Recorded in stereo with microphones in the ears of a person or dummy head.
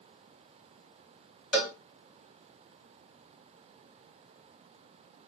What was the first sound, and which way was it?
A cowbell, 5° right (ahead or behind).